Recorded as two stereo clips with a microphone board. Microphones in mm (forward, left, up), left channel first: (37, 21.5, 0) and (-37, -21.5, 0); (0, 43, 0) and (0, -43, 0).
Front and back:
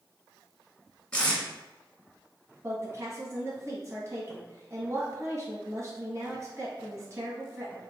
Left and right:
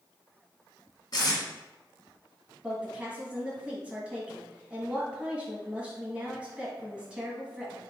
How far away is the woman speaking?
About 1.2 m.